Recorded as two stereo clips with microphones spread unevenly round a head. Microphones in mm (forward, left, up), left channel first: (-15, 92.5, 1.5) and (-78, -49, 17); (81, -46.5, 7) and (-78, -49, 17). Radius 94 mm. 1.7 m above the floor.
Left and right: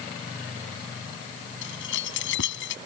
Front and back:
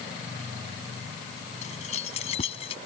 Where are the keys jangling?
60° left; by 2.8 s 65° left.